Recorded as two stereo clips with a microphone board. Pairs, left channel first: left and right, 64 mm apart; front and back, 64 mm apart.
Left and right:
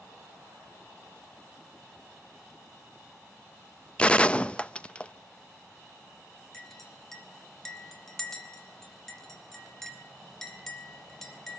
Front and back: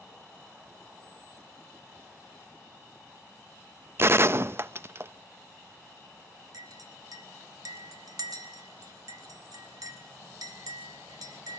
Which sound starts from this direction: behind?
A clink, at 6.5 s.